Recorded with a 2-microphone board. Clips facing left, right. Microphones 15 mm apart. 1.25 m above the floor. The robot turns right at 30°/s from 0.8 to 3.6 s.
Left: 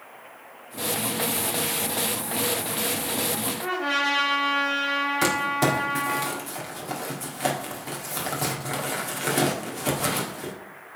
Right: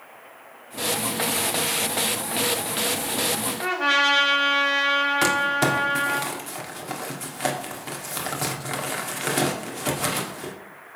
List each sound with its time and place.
3.6 s a trumpet: 90° right, 3 m
5.2 s crumpling: 20° right (ahead or behind), 1.6 m